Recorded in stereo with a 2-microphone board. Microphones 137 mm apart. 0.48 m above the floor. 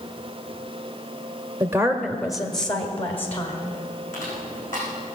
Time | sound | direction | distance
1.6 | a woman speaking | 20° right (ahead or behind) | 1.0 m
4.1 | crushing | 70° left (ahead or behind) | 7.5 m